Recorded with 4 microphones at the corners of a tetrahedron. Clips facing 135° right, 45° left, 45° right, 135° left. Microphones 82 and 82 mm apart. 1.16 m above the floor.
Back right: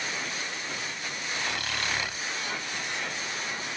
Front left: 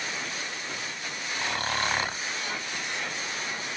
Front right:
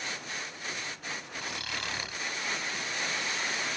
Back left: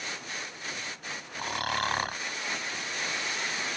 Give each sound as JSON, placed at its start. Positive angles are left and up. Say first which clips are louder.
{"t": 1.4, "sound": "snoring", "louder": "front left 5 dB, back left 10 dB", "azimuth_deg": 100}